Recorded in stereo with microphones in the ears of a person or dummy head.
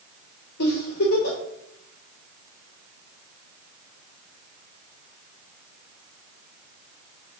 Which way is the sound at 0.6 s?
60° left (ahead or behind).